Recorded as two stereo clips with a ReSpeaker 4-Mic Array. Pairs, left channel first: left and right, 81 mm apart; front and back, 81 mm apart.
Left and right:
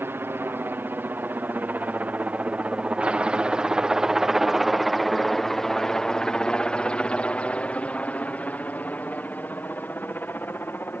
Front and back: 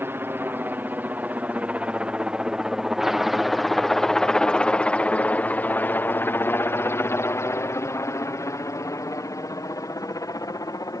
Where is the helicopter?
135° right; by 11.0 s 30° left.